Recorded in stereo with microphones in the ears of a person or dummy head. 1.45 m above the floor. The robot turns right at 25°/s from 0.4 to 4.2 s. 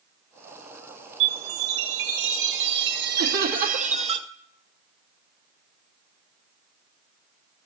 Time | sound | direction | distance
1.2 | a chime | 110° right | 1.5 m
3.2 | laughter | 80° right | 2.5 m